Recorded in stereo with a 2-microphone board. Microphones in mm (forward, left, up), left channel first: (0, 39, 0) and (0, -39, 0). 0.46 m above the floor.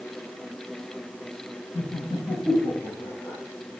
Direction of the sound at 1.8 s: 60° left (ahead or behind).